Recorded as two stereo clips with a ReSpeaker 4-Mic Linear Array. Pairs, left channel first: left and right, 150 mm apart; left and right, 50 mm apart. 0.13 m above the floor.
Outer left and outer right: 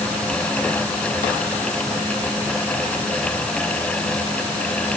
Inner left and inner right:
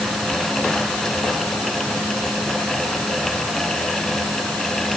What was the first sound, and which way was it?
Only background noise.